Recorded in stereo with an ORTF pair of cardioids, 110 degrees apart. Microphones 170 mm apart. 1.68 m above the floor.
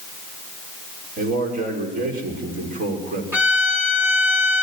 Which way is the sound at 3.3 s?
15° right.